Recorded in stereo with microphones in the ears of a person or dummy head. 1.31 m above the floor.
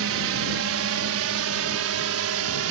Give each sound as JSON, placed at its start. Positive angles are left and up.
{"t": 0.0, "sound": "a drone", "side_deg": -60}